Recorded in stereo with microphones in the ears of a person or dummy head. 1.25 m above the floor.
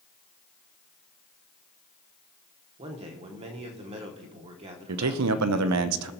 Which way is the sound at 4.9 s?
85° right.